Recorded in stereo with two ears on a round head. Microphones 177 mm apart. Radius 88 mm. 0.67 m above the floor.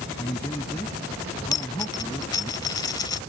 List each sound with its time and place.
0.2 s a man speaking: 15° left (ahead or behind)
1.5 s a dropped coin: 20° left (ahead or behind)